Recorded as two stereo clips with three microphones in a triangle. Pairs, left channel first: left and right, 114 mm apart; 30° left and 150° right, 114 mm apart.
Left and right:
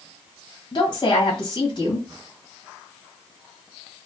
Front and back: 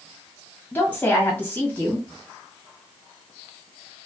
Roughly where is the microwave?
No microwave in this recording.